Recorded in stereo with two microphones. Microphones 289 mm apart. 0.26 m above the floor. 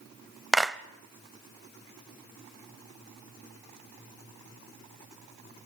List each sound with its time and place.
0.5 s a clap: centre (ahead or behind), 0.7 m